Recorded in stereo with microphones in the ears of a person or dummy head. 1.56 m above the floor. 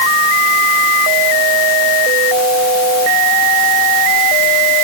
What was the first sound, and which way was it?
Only background noise.